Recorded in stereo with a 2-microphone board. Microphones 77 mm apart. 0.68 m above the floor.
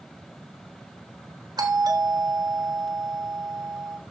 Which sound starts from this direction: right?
A doorbell, at 1.6 s.